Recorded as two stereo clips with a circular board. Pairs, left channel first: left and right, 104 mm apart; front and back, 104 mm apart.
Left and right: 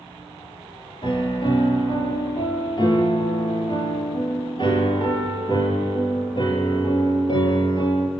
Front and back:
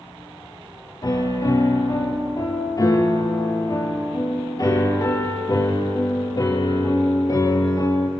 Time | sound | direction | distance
1.0 | a piano | 55° left | 3 m